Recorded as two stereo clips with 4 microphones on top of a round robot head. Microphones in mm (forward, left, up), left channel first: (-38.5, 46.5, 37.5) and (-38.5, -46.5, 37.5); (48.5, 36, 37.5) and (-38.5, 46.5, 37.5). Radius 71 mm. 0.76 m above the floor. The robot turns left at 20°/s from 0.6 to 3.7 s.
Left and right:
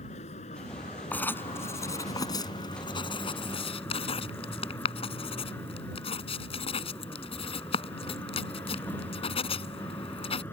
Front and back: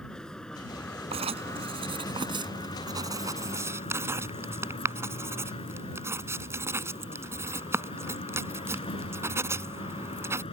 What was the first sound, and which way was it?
A vehicle, 75° left.